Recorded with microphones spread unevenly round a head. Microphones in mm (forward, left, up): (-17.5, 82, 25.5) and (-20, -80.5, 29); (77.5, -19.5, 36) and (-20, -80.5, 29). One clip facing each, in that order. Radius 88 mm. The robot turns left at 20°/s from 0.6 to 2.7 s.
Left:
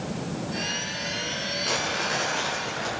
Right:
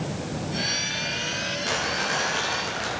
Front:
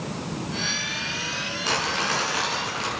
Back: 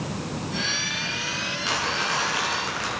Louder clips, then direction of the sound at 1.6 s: Even, front 1 dB; 10° right.